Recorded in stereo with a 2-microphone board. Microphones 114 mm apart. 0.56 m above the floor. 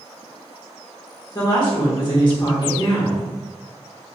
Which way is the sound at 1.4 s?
40° left (ahead or behind).